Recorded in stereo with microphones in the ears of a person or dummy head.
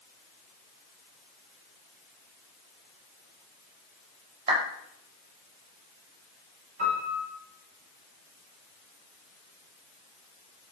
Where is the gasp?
I don't hear a gasp.